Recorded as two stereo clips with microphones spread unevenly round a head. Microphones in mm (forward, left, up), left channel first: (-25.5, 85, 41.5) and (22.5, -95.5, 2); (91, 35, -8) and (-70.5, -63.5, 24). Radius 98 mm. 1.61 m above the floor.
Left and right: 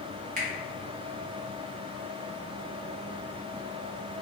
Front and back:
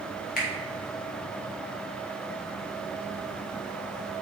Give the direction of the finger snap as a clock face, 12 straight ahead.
1 o'clock.